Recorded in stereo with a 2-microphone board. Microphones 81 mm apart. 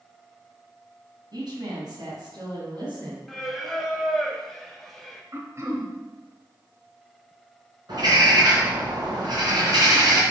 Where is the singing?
5° left (ahead or behind), 0.8 m.